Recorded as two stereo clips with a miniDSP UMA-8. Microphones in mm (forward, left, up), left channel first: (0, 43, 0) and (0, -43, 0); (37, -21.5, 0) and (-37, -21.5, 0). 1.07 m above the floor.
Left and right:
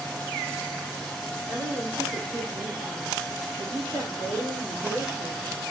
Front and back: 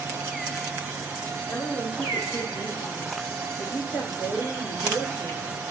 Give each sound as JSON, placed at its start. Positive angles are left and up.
{"t": 1.5, "sound": "a woman speaking", "azimuth_deg": 80, "distance_m": 4.0}